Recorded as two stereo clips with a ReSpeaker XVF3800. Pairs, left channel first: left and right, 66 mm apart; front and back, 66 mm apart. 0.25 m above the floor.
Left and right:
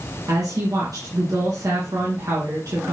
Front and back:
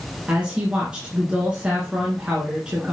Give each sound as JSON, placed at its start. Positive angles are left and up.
{"t": 0.3, "sound": "a woman speaking", "azimuth_deg": -105, "distance_m": 2.5}